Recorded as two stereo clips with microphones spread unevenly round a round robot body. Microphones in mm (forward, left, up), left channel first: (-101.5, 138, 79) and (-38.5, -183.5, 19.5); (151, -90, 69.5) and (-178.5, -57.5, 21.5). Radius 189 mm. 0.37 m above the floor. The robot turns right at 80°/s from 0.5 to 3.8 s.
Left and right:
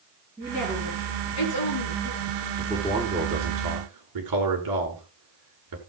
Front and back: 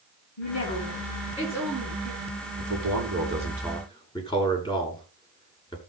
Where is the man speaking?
Straight behind, 5.5 m; by 5.8 s 85° right, 5.5 m.